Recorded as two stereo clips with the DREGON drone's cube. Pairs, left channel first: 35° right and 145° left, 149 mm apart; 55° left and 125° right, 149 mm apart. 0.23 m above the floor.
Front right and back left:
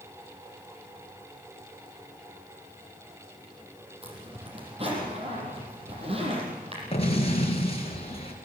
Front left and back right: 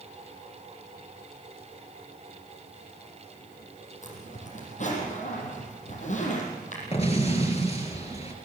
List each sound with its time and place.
4.0 s a zipper: 95° left, 6 m
6.9 s an explosion: 10° left, 4 m